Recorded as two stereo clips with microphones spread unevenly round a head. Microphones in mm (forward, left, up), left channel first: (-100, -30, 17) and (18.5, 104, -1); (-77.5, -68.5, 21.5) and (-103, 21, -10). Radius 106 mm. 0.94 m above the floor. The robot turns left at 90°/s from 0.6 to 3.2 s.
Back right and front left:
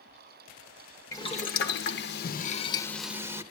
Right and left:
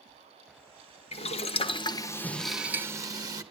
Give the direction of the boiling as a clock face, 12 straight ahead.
2 o'clock.